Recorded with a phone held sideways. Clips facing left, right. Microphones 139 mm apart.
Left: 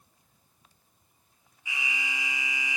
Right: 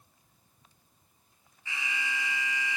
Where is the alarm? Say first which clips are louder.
Even; 15° left (ahead or behind), 3.5 m.